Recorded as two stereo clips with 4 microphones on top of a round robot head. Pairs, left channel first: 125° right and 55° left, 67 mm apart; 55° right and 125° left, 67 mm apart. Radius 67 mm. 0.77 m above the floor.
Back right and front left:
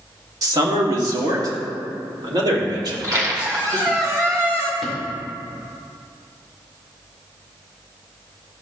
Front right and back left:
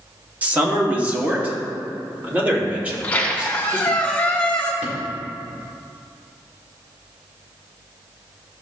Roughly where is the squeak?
Ahead.